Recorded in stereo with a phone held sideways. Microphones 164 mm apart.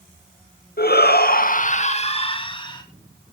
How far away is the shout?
About 0.9 m.